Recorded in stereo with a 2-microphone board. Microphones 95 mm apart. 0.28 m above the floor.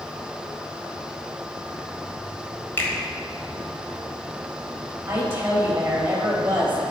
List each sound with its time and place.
2.8 s a finger snap: 25° left (ahead or behind), 1.3 m
5.1 s a woman speaking: 20° right (ahead or behind), 1.0 m